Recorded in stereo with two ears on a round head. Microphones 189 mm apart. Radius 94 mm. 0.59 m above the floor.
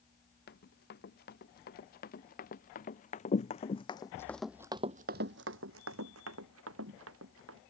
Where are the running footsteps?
50° left (ahead or behind); by 7.6 s 70° right (ahead or behind).